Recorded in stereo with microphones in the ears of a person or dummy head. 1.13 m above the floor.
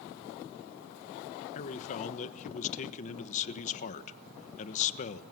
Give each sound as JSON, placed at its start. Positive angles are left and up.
{"t": 1.6, "sound": "a man speaking", "side_deg": 40, "distance_m": 1.3}